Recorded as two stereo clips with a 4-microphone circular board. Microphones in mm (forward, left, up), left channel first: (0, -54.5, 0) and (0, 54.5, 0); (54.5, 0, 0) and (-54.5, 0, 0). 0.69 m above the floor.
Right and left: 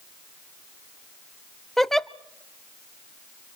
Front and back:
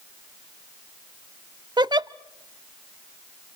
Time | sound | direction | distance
1.8 | a giggle | 175° right | 0.6 m